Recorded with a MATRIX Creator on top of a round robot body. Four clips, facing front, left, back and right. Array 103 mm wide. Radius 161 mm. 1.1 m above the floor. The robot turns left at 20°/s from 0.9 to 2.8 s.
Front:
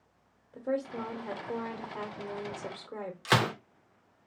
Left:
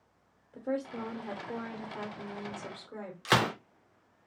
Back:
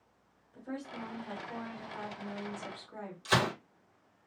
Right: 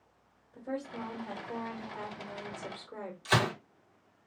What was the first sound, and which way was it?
A woman speaking, 40° left.